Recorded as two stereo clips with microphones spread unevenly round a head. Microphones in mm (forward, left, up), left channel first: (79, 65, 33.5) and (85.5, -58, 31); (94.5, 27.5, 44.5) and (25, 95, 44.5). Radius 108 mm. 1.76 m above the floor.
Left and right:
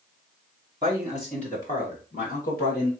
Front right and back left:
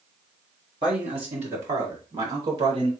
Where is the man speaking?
160° right, 1.5 m; by 2.9 s 135° left, 2.5 m.